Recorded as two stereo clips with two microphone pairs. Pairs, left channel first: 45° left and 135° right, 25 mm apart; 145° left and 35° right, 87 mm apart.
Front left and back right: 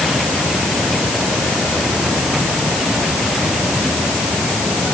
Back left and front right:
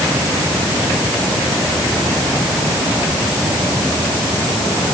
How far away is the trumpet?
I don't hear a trumpet.